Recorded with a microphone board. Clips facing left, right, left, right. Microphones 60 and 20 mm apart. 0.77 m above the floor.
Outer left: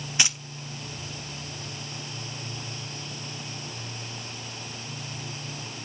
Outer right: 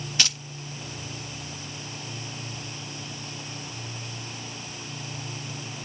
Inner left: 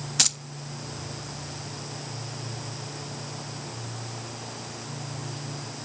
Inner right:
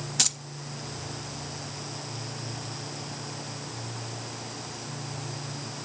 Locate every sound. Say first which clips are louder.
0.2 s keys jangling: outer left 1 dB, inner left 3 dB; 20° left (ahead or behind), 0.6 m